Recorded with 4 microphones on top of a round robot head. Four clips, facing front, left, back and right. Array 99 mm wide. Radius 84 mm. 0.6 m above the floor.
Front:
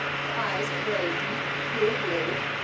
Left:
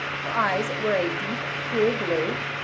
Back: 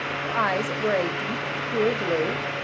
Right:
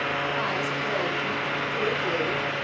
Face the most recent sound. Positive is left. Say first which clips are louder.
# left 3 dB, back 7 dB
turn(degrees=140)